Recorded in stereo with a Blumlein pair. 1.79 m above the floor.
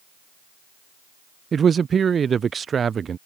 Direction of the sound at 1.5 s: 20° right.